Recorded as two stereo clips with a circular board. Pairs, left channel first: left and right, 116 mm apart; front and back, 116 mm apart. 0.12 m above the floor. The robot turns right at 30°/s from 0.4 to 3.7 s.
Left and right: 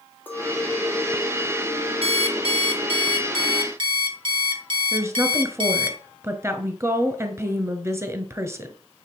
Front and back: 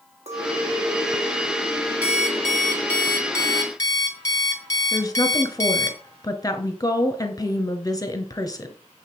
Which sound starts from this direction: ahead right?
A woman speaking, at 4.9 s.